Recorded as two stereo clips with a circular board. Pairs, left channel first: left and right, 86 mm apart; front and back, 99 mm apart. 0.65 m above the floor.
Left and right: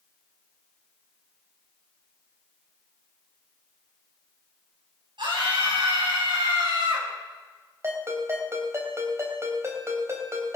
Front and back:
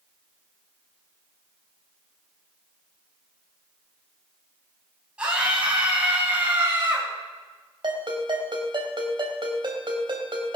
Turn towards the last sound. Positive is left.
turn(degrees=-145)